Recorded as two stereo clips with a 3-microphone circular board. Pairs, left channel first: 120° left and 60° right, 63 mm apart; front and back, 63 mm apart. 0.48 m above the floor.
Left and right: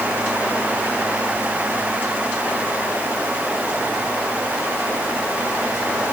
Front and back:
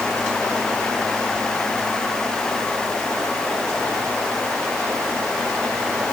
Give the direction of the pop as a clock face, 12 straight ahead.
I don't hear a pop.